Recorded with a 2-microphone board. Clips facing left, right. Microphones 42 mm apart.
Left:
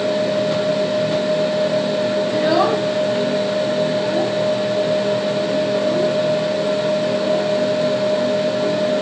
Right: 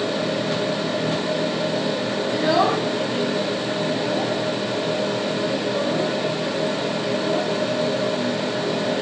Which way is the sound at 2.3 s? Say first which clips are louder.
Left 1 dB; 5° left (ahead or behind).